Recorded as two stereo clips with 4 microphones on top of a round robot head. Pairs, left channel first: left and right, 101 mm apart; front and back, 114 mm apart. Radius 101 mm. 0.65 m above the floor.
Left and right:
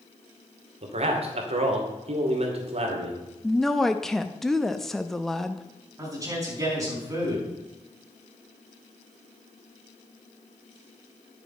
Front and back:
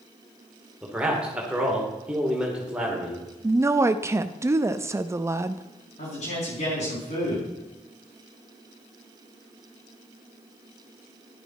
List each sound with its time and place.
0.8 s a man speaking: 95° right, 2.5 m
3.4 s a woman speaking: 175° left, 0.5 m
6.0 s a man speaking: 30° right, 5.5 m